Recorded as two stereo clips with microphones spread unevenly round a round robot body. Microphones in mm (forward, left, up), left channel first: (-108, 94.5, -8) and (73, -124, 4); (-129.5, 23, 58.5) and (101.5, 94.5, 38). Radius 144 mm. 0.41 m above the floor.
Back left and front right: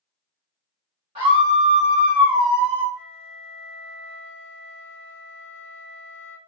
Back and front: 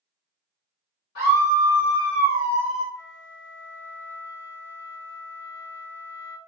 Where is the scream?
120° right, 2 m; by 2.9 s 85° right, 1.5 m.